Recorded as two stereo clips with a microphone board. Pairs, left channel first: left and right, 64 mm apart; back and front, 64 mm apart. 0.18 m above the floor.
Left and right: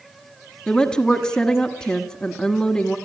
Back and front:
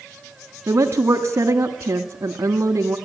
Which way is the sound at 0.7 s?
15° left.